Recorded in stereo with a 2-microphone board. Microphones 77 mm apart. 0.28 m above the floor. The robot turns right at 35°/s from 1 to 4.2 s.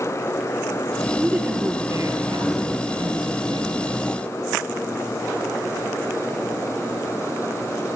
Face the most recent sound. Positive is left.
turn(degrees=-55)